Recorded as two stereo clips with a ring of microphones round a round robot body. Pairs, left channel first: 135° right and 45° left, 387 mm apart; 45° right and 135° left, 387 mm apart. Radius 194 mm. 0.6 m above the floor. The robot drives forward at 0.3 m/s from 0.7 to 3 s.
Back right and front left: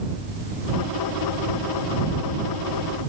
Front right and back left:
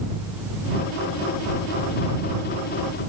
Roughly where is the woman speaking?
I don't hear a woman speaking.